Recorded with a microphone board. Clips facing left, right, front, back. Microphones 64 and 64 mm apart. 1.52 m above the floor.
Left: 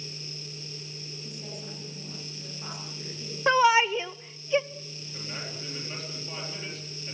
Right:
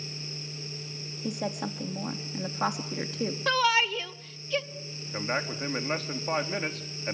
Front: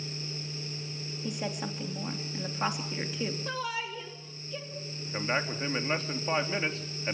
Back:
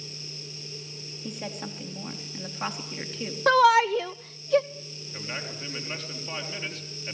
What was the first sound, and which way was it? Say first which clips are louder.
A woman speaking: right 12 dB, front 1 dB; 85° right.